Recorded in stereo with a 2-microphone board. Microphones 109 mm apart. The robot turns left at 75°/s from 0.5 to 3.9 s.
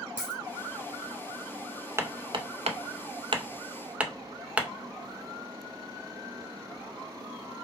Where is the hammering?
25° right (ahead or behind), 0.5 m; by 4.7 s 10° right (ahead or behind), 0.5 m.